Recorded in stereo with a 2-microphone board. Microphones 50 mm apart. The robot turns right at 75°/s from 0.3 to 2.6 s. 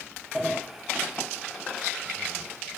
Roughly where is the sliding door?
Centre.